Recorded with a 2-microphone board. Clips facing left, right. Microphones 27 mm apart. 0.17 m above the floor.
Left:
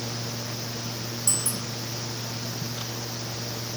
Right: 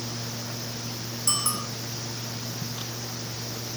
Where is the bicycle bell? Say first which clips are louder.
Right 4 dB; 70° right (ahead or behind).